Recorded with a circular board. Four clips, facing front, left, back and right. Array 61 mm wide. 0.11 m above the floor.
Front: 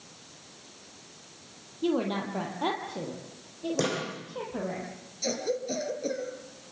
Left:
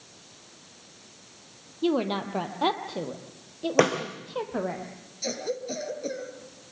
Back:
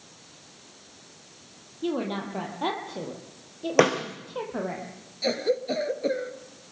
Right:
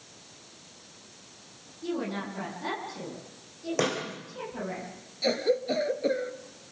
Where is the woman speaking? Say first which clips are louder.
Left 7 dB, front 1 dB; 90° left, 3.5 m; by 4.8 s 115° left, 4 m.